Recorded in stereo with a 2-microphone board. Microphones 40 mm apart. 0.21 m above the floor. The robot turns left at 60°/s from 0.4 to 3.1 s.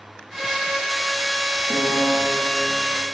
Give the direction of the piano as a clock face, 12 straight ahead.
2 o'clock.